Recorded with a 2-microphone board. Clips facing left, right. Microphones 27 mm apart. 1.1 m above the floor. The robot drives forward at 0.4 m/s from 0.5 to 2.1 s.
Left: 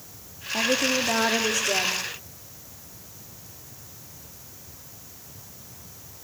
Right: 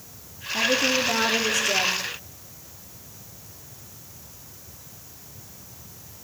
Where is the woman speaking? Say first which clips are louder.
Right 1 dB; 20° left (ahead or behind), 1.7 m; by 2.0 s 15° left (ahead or behind), 2.5 m.